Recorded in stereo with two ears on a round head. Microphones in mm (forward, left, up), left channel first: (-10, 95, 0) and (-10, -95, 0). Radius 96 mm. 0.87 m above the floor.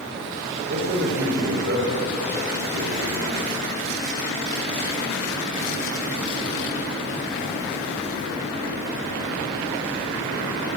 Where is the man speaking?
55° right (ahead or behind), 4 m; by 3.4 s 70° right (ahead or behind), 2.5 m.